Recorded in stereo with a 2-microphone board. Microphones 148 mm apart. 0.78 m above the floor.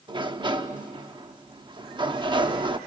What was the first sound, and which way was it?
A sliding door, 30° right (ahead or behind).